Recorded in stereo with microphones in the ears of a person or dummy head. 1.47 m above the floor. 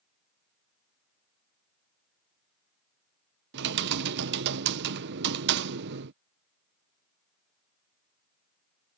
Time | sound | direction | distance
3.5 | typing on a keyboard | 65° right (ahead or behind) | ?